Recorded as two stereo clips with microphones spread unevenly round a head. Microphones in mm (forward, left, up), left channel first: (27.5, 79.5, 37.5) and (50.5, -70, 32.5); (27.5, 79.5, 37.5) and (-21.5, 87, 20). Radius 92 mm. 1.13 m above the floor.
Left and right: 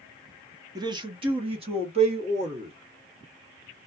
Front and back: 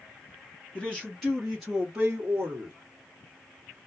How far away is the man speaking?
About 0.6 m.